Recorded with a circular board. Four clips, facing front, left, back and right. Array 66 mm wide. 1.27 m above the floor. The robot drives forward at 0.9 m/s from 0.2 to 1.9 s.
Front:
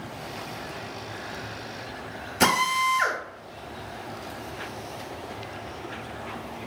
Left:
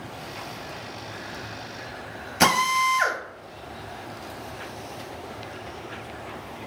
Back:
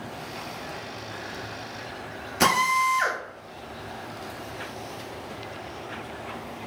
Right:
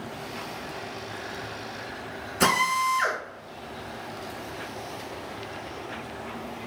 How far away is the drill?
About 1.0 m.